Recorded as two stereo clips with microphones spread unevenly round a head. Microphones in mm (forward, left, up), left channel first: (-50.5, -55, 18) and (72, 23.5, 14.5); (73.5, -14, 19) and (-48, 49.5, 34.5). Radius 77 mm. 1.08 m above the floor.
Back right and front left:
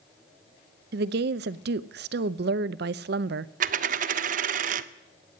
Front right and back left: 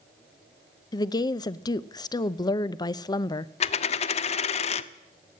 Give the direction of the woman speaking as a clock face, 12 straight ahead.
11 o'clock.